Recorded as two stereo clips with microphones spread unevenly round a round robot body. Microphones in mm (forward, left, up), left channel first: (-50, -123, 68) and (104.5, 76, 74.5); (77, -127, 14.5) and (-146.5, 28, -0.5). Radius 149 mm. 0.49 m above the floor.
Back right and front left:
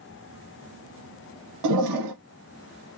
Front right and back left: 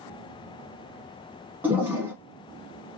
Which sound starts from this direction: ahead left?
A toilet flushing, at 1.6 s.